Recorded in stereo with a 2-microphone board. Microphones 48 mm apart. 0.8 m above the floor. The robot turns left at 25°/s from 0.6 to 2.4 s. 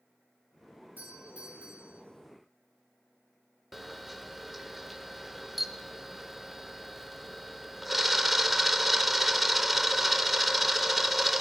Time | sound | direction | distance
1.0 | a doorbell | 40° right (ahead or behind) | 3 m
3.7 | a camera shutter | 5° right (ahead or behind) | 0.6 m